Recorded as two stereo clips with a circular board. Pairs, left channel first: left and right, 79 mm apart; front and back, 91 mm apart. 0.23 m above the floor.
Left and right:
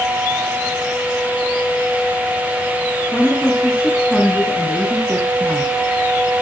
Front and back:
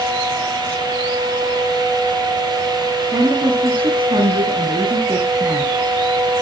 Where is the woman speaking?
165° left, 1.8 m.